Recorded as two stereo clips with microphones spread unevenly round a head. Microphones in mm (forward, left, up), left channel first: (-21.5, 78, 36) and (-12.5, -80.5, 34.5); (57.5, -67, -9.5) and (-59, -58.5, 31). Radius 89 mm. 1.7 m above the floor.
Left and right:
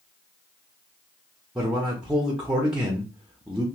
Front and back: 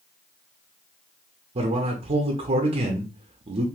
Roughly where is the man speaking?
Behind.